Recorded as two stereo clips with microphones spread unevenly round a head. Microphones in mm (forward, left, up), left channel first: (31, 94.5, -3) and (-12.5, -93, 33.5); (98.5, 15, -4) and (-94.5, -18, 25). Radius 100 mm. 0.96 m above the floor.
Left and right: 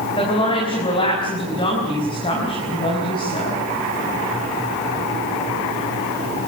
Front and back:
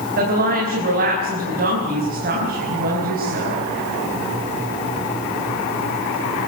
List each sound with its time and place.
0.2 s a woman speaking: 145° left, 6 m